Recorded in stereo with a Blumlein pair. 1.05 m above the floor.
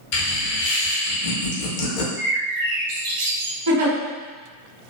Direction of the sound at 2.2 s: 50° right.